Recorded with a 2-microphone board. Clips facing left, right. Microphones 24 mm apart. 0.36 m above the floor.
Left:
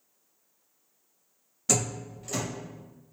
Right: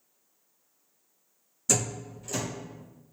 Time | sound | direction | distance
1.7 | a door slam | 25° left (ahead or behind) | 1.3 m